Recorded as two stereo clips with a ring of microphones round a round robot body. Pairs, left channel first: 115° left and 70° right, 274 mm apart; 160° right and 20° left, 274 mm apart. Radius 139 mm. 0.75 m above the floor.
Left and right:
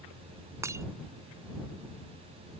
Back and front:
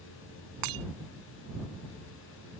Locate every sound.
0.6 s breaking glass: 10° left